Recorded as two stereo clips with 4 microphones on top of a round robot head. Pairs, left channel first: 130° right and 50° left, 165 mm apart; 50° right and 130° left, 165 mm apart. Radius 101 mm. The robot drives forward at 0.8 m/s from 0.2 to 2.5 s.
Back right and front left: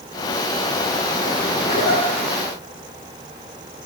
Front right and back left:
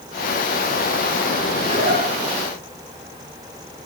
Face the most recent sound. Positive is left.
turn(degrees=-170)